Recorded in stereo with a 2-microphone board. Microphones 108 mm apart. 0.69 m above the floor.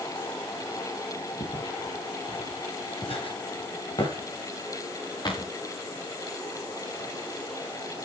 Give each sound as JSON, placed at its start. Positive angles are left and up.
{"t": 1.4, "sound": "footsteps", "side_deg": 60, "distance_m": 9.0}